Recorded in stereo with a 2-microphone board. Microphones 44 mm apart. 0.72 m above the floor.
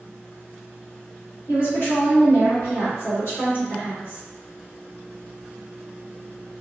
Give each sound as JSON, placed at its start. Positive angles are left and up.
{"t": 1.5, "sound": "a woman speaking", "side_deg": 55, "distance_m": 1.8}